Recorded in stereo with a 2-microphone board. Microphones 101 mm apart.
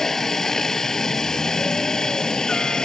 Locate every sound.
0.0 s a helicopter: 5° left (ahead or behind)